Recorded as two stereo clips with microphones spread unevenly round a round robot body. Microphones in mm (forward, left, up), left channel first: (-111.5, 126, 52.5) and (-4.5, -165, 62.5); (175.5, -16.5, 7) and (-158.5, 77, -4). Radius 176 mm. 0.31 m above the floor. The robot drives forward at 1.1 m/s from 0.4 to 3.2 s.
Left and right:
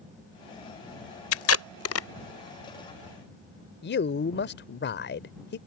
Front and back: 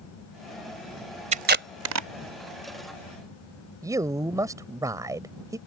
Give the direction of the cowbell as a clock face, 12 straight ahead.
No cowbell in this recording.